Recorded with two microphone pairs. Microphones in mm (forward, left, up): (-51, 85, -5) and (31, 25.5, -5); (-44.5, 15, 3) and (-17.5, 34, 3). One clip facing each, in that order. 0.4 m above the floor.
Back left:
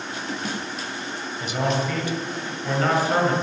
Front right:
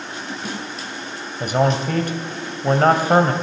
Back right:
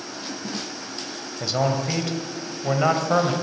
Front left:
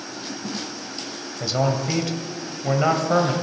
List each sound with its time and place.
1.4 s a man speaking: 60° right, 2 m